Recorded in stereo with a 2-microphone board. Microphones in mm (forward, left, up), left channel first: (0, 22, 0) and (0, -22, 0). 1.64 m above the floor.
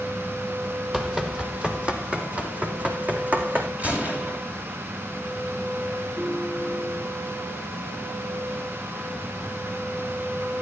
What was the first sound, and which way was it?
Running footsteps, 5° right (ahead or behind).